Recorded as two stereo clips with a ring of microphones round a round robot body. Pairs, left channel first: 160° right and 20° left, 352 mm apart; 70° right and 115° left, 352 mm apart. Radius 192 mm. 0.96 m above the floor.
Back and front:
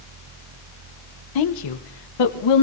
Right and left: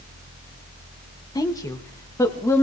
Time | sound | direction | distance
1.4 | a woman speaking | 145° right | 1.2 m